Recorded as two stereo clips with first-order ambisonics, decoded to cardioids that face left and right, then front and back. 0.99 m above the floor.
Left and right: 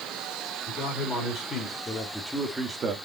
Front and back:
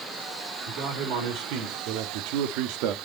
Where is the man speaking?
150° left, 3 m; by 3.0 s 155° right, 1.4 m.